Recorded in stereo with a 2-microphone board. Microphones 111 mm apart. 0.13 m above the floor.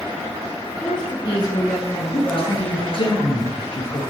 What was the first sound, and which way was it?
A woman speaking, 45° left (ahead or behind).